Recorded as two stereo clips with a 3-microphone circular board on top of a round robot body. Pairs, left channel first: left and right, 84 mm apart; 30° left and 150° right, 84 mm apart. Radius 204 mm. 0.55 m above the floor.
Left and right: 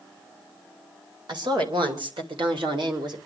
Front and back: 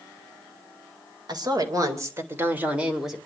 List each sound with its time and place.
1.3 s a woman speaking: 115° right, 3.5 m; by 3.2 s 65° right, 3 m